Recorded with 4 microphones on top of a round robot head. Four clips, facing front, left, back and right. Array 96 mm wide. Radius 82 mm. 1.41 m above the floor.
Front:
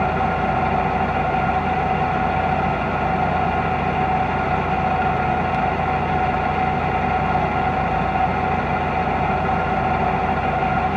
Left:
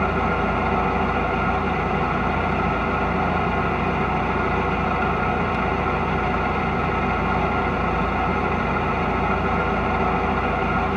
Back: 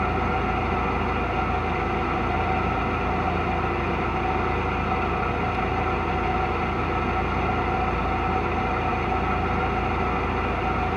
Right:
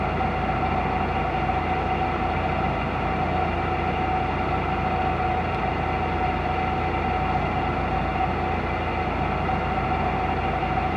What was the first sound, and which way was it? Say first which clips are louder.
An engine running: left 3 dB, front 5 dB; 10° left.